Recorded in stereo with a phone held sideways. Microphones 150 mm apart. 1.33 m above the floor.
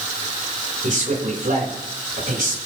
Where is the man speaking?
65° right (ahead or behind), 5 m; by 2.6 s 75° right (ahead or behind), 6 m.